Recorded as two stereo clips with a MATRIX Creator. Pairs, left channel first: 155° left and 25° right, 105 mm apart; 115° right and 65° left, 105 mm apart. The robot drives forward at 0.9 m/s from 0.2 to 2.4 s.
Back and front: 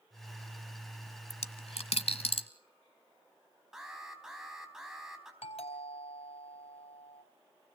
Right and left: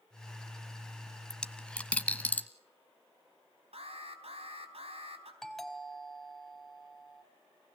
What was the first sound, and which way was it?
A dropped coin, 165° left.